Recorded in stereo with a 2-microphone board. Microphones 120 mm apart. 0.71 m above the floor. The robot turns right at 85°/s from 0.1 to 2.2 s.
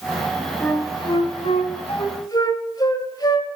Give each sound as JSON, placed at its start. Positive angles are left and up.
{"t": 0.6, "sound": "a flute", "side_deg": 10, "distance_m": 1.7}